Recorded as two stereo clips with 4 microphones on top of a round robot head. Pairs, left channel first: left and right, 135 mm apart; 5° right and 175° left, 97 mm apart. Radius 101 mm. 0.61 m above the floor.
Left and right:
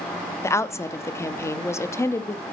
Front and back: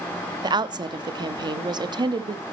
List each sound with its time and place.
0.4 s a woman speaking: 155° left, 0.8 m